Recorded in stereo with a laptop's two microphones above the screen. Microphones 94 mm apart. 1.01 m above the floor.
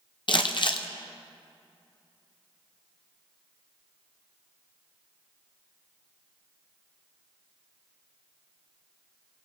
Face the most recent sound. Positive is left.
turn(degrees=55)  # may be behind; listen again after turning